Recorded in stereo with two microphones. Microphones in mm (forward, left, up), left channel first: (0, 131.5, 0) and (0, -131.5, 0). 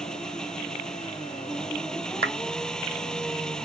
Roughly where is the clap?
Right.